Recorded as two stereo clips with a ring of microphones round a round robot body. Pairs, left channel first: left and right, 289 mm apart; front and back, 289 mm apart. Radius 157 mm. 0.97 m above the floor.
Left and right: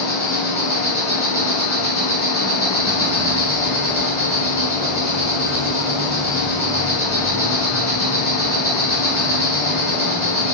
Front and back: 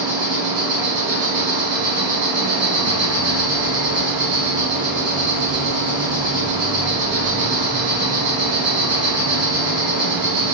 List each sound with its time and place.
0.0 s an insect: 165° right, 1.6 m